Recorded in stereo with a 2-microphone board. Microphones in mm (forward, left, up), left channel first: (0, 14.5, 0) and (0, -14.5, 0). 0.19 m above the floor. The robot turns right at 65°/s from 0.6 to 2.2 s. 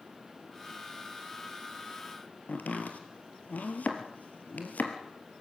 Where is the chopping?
65° left (ahead or behind), 2.5 m.